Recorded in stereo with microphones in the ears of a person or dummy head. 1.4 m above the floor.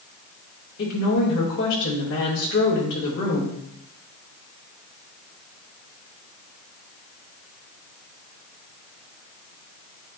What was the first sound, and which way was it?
A woman speaking, 75° left (ahead or behind).